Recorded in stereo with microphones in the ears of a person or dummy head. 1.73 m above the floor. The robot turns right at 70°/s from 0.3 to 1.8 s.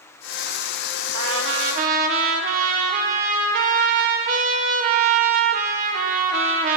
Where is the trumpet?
95° right, 1.3 m; by 6.8 s 50° right, 1.3 m.